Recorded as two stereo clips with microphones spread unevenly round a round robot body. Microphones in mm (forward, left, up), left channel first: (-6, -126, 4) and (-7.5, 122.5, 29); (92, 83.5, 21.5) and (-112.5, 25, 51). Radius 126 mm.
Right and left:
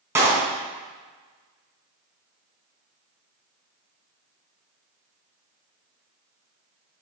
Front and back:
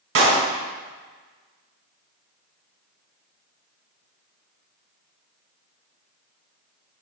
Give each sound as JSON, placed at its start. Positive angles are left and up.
{"t": 0.1, "sound": "a clap", "azimuth_deg": 170, "distance_m": 4.0}